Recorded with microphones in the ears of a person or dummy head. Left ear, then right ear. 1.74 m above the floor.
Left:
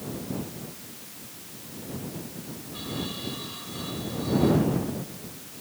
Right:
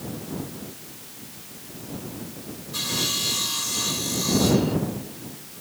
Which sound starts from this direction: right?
Sawing, at 2.7 s.